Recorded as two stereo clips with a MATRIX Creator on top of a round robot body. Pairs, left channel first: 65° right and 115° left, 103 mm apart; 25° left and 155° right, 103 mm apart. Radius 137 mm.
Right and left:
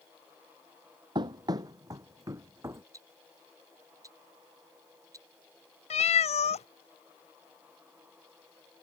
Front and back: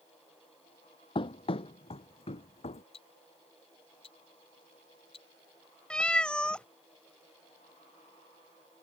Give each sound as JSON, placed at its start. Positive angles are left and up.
{"t": 1.1, "sound": "running footsteps", "azimuth_deg": 65}
{"t": 2.9, "sound": "ticking", "azimuth_deg": 55}
{"t": 5.9, "sound": "a cat meowing", "azimuth_deg": -60}